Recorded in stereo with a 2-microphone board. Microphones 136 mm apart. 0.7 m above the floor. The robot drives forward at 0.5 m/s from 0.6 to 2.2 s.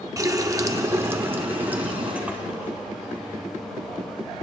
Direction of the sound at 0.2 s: 25° right (ahead or behind).